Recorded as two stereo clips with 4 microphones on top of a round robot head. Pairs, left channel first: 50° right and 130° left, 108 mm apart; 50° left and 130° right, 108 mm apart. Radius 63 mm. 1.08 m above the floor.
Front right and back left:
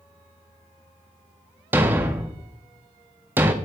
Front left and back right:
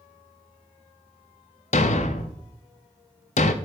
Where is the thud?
60° left, 0.6 m.